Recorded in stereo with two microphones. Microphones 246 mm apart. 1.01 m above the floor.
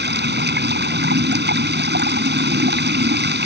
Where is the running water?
45° right (ahead or behind).